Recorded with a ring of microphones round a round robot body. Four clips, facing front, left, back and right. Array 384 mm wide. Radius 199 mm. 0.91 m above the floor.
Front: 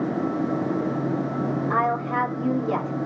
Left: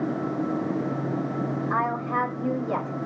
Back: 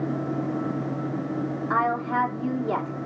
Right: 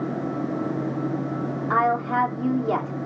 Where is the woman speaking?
100° right, 3 m.